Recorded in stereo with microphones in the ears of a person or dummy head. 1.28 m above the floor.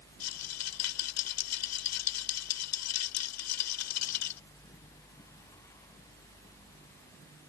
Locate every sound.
0.2 s a rattle: 85° left